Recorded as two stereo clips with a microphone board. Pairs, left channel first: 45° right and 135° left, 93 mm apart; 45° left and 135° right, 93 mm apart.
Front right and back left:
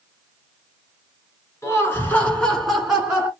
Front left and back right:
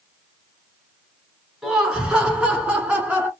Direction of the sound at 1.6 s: 55° right.